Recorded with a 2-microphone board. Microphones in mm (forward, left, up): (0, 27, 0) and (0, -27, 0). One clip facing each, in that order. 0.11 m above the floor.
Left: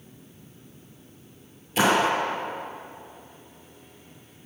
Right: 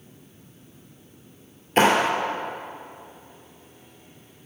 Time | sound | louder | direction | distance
1.8 | a clap | right 2 dB | 45° right (ahead or behind) | 2 m